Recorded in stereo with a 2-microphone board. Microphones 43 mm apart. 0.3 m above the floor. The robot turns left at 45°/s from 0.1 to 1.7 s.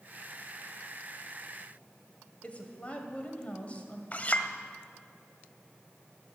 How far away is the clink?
About 0.8 m.